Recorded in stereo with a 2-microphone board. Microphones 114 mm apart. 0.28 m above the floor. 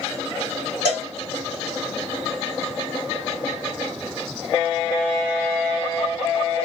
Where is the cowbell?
35° right (ahead or behind), 2 m.